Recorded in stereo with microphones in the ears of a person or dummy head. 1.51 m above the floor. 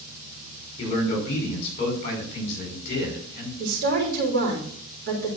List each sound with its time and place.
0.8 s a man speaking: 40° left (ahead or behind), 5.5 m
3.6 s a woman speaking: 60° right (ahead or behind), 4 m